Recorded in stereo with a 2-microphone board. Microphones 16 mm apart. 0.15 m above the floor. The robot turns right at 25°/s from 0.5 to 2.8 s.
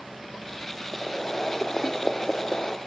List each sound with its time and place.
0.9 s boiling: 25° left, 1.0 m; by 2.8 s 70° left, 1.0 m